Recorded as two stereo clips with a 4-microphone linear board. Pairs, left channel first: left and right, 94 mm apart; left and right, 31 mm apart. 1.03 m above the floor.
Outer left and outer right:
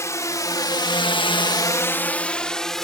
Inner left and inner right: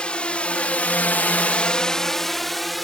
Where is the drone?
30° left (ahead or behind); by 2.9 s 5° left (ahead or behind).